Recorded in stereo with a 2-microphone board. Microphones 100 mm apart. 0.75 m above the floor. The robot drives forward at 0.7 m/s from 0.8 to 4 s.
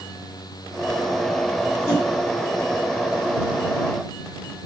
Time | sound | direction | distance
1.9 | a whoosh | 30° left (ahead or behind) | 6 m